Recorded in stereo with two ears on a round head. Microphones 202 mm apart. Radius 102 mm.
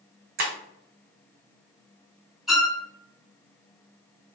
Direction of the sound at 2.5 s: 5° right (ahead or behind).